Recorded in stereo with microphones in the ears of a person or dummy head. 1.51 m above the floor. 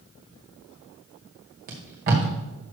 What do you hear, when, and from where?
1.7 s tape being pulled: 40° right (ahead or behind), 1.6 m